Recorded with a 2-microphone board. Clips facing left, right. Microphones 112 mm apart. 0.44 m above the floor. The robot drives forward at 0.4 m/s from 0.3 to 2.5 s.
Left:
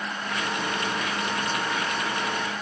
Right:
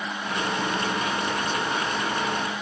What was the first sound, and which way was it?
Only background noise.